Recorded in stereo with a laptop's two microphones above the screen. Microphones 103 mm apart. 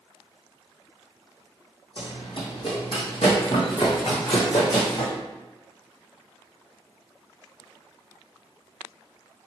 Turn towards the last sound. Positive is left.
turn(degrees=40)  # may be behind; listen again after turning